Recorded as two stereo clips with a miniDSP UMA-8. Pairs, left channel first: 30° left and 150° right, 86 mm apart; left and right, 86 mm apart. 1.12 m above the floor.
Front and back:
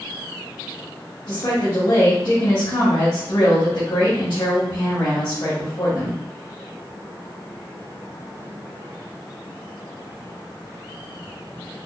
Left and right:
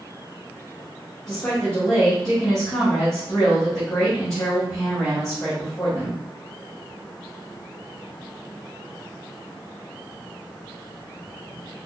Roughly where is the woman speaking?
Ahead left.